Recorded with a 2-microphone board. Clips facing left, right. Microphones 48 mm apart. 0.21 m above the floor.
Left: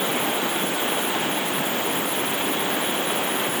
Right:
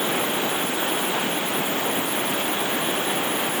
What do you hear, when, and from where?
Only background noise.